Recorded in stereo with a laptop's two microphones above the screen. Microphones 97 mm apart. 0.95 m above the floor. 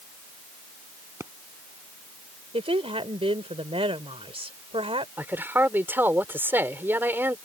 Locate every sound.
1.2 s a pop: 30° right (ahead or behind)
2.5 s a woman speaking: 80° right
5.2 s a man speaking: 20° right (ahead or behind)